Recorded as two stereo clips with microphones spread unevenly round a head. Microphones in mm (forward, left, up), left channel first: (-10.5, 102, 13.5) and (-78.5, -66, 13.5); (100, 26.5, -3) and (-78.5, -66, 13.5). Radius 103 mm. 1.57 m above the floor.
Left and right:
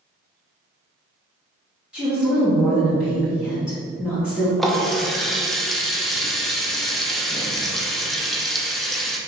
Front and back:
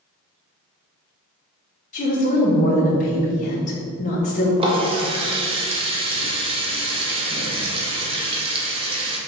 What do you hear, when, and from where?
1.9 s a woman speaking: 25° right, 1.6 m
4.6 s a running tap: 155° left, 0.8 m